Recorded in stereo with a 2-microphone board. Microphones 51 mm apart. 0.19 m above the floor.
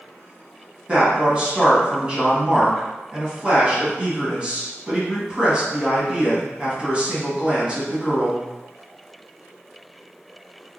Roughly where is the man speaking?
Right.